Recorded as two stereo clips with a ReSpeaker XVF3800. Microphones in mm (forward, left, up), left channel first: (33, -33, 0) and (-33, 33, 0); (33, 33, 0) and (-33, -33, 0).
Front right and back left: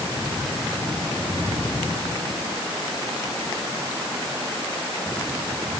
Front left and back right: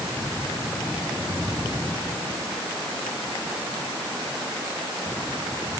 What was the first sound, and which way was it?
Only background noise.